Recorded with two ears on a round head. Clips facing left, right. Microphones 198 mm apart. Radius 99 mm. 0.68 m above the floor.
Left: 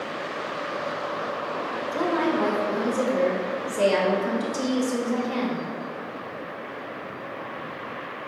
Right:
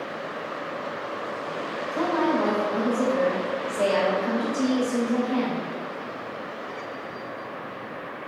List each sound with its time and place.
1.9 s a woman speaking: 40° left (ahead or behind), 2.5 m